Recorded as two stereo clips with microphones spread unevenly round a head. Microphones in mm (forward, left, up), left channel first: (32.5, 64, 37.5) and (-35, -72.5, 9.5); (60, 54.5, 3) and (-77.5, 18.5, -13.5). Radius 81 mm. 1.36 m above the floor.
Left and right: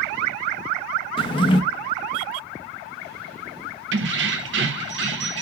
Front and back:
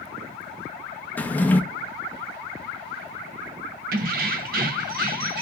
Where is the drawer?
80° left, 0.8 m.